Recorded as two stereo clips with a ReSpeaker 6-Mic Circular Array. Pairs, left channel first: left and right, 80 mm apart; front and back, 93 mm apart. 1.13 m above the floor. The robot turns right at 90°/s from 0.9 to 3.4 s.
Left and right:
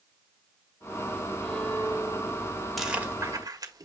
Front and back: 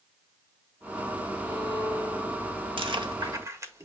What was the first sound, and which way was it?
A violin, 5° right.